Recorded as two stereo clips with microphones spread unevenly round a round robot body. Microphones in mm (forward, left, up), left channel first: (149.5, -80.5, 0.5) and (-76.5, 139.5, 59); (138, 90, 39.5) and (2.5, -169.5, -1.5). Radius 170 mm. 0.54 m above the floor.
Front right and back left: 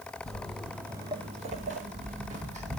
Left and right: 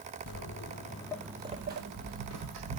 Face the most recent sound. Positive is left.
turn(degrees=-160)